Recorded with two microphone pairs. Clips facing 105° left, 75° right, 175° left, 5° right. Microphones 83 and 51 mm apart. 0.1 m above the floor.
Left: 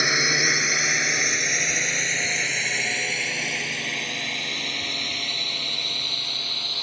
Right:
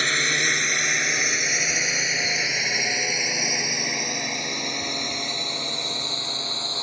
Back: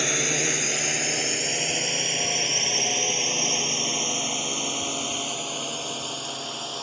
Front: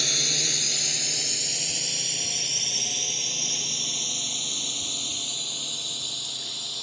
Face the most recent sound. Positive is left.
turn(degrees=-140)